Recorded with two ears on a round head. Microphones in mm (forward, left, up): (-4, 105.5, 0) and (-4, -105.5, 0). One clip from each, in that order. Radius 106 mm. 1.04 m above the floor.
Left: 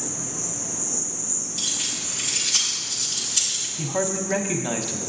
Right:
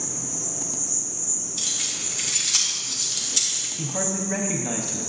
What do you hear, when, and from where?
0.0 s an insect: 65° right (ahead or behind), 2.5 m
1.6 s keys jangling: 20° right (ahead or behind), 1.9 m
3.8 s a man speaking: 20° left (ahead or behind), 0.6 m